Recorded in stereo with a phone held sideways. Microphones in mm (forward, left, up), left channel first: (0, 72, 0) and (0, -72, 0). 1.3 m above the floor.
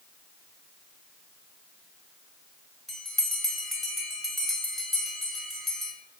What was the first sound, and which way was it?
A bell, centre (ahead or behind).